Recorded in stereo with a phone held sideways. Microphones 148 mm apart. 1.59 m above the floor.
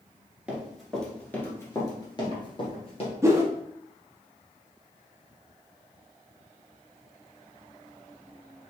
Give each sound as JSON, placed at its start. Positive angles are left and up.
{"t": 0.5, "sound": "running footsteps", "side_deg": -5, "distance_m": 1.6}
{"t": 3.2, "sound": "a whoosh", "side_deg": -20, "distance_m": 0.8}